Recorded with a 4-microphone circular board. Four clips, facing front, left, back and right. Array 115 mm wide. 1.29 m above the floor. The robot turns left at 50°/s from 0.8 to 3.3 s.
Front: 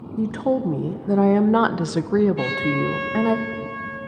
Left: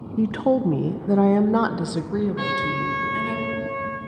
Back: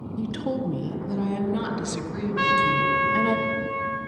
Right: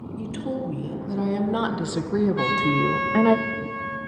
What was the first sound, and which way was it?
A woman speaking, 60° left.